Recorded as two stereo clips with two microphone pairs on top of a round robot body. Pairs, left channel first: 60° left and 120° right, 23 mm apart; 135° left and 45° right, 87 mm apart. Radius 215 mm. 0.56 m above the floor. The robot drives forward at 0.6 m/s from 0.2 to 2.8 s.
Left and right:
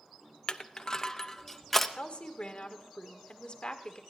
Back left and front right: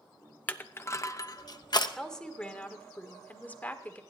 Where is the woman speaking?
50° left, 2.0 m; by 4.0 s 70° left, 1.8 m.